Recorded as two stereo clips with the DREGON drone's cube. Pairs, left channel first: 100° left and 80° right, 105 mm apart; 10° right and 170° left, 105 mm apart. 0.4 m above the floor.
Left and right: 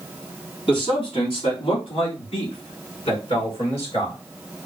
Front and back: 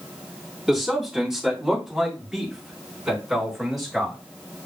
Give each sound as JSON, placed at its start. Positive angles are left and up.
{"t": 0.7, "sound": "a man speaking", "azimuth_deg": 85, "distance_m": 2.0}